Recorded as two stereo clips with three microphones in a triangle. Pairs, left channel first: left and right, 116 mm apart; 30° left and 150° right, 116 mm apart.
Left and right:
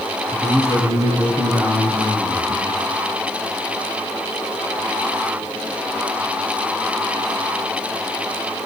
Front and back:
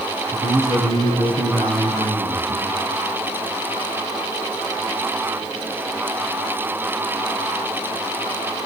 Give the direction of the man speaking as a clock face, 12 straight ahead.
5 o'clock.